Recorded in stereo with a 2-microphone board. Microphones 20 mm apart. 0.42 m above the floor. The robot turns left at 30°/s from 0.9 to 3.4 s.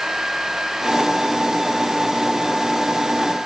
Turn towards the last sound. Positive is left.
No sound to turn to.